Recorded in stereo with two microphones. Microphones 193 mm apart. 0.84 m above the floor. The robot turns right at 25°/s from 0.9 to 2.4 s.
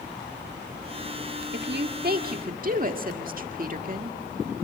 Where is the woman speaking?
65° right (ahead or behind), 1.7 m; by 4.2 s 45° right (ahead or behind), 1.7 m.